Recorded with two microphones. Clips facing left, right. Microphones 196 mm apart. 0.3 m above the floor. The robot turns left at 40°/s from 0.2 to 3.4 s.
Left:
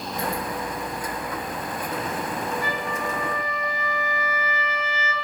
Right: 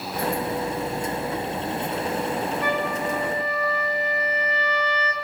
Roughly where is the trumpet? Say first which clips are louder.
Right 4 dB; behind right.